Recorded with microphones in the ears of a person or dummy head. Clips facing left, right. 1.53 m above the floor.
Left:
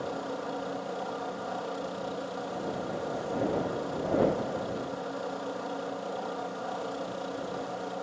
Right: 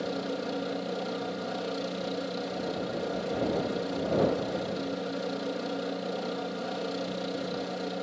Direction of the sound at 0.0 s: 25° right (ahead or behind).